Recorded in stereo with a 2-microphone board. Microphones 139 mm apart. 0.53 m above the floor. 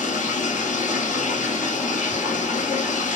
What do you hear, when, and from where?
0.0 s running water: 75° left (ahead or behind), 1.3 m